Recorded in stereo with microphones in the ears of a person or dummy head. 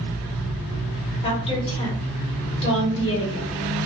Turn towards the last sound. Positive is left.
turn(degrees=30)  # may be behind; listen again after turning